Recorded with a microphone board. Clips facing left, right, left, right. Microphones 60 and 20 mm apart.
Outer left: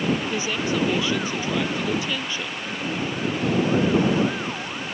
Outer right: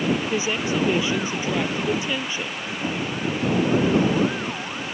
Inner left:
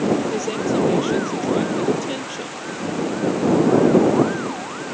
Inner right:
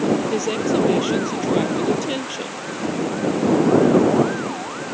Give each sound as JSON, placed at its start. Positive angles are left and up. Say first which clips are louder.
{"t": 0.3, "sound": "a woman speaking", "louder": "outer right 1 dB, inner right 1 dB", "side_deg": -20}
{"t": 2.8, "sound": "knocking", "louder": "outer right 1 dB, inner right 1 dB", "side_deg": -35}